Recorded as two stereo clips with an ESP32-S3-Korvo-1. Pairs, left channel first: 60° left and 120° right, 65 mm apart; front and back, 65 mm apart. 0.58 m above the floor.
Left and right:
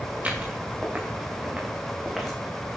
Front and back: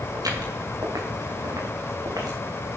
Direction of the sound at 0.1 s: 170° left.